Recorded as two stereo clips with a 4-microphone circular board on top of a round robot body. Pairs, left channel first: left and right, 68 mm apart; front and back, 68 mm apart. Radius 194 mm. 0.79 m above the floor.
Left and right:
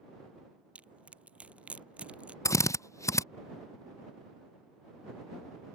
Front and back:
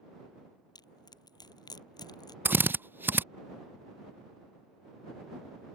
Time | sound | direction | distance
0.8 | crushing | 15° right | ?
2.5 | a drill | 125° left | ?